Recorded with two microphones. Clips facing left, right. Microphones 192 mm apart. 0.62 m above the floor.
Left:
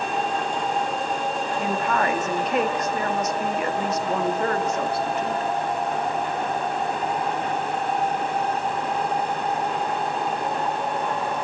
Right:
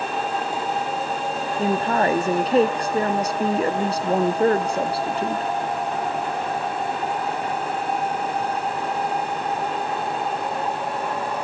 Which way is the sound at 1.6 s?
30° right (ahead or behind).